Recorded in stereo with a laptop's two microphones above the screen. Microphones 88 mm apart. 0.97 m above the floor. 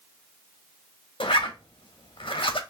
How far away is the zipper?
About 1.1 m.